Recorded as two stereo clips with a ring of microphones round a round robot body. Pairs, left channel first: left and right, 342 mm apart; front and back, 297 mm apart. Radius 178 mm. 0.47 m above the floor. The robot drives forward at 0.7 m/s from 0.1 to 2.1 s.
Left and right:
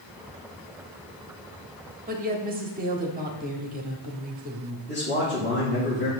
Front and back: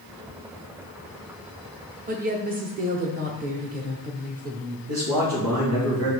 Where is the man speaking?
155° left, 5 m.